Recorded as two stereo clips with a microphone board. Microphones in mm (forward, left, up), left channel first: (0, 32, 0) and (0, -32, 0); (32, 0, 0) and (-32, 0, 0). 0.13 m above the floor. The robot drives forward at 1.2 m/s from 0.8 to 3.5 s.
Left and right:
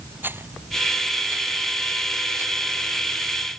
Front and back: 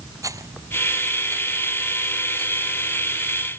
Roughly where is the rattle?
Behind right.